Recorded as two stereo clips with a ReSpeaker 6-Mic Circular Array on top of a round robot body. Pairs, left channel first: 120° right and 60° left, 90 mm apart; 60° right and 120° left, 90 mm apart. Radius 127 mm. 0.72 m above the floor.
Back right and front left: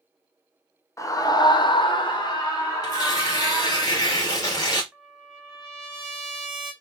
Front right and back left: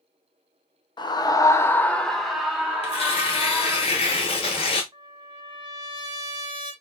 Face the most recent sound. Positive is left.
turn(degrees=150)